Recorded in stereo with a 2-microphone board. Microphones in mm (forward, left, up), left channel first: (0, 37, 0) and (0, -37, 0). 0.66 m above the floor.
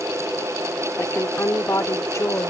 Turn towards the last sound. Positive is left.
turn(degrees=45)  # may be behind; listen again after turning